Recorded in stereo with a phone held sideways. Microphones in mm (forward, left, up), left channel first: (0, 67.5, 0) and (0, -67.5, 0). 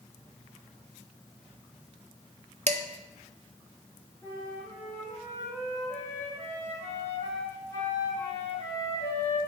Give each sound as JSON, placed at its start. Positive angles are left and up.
{"t": 2.7, "sound": "dishes clattering", "side_deg": -55, "distance_m": 0.5}
{"t": 4.2, "sound": "a flute", "side_deg": 20, "distance_m": 2.5}